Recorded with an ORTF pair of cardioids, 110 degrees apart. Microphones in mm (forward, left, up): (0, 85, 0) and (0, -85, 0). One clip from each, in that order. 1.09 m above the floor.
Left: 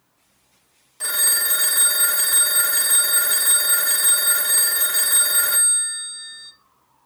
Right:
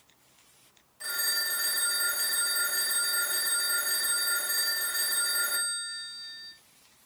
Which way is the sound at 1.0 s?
60° left.